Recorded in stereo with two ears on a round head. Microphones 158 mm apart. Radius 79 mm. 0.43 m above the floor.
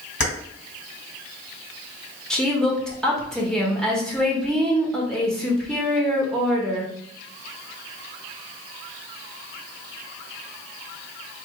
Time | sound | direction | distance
0.2 | keys jangling | 65° left (ahead or behind) | 1.9 m
2.3 | a woman speaking | 5° left (ahead or behind) | 0.8 m